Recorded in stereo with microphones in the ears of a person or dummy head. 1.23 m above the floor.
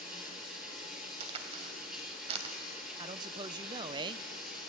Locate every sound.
0.0 s running water: 5° right (ahead or behind), 7 m
1.2 s a crack: 35° right (ahead or behind), 2.5 m
3.0 s a man speaking: 25° right (ahead or behind), 0.6 m